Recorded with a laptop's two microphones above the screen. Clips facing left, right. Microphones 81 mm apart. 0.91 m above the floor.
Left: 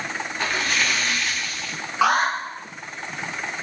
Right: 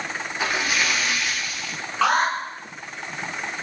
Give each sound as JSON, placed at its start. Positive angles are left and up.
{"t": 0.4, "sound": "a splash", "side_deg": -5, "distance_m": 1.9}
{"t": 2.0, "sound": "an alarm", "side_deg": 10, "distance_m": 6.0}